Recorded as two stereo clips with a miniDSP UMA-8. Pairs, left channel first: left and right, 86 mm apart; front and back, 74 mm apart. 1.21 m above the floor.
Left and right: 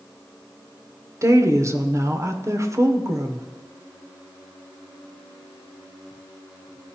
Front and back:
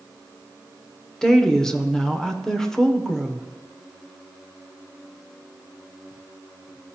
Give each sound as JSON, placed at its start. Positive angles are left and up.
{"t": 1.2, "sound": "a woman speaking", "azimuth_deg": -80, "distance_m": 0.6}